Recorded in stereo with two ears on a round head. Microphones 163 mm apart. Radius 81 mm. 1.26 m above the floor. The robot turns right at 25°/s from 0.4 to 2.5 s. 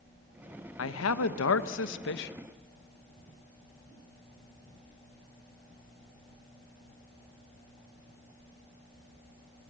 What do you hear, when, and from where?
0.8 s a man speaking: 80° left, 1.2 m; by 2.3 s 120° left, 1.2 m